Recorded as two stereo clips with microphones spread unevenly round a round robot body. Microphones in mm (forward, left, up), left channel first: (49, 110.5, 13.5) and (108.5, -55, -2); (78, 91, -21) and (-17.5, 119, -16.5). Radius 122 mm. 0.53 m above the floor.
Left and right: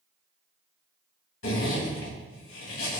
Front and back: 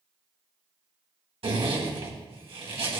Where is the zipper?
140° left, 2 m.